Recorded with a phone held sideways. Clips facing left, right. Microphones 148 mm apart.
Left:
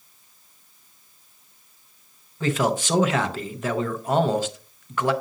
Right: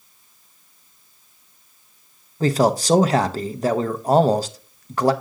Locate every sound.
2.4 s a man speaking: 35° right (ahead or behind), 0.6 m